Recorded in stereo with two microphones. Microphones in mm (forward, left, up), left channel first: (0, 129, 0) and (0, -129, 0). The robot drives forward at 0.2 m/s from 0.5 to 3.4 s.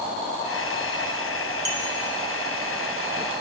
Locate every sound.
1.6 s a clink: 45° right (ahead or behind), 1.6 m